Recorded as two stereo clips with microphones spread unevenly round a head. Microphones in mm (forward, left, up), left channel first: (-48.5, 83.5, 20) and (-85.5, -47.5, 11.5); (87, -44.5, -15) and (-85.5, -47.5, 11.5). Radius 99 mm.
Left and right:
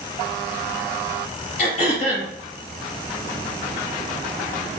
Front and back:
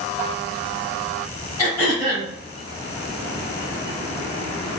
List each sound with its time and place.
1.6 s throat clearing: 80° left, 2 m